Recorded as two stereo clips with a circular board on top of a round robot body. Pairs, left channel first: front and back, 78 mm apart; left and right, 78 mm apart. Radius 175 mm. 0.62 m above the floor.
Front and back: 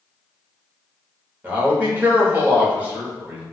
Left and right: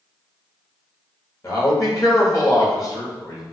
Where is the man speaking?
115° left, 1.4 m.